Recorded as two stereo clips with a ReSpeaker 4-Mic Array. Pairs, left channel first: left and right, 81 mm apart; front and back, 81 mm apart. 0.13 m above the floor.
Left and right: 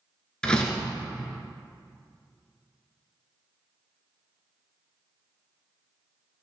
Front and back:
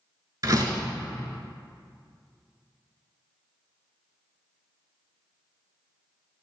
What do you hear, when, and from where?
0.4 s a door slam: 165° left, 1.1 m